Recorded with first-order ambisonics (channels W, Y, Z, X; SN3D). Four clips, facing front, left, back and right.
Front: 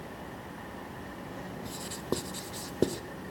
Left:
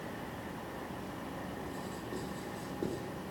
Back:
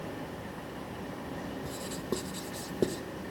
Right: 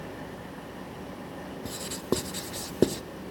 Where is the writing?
80° right, 0.6 m.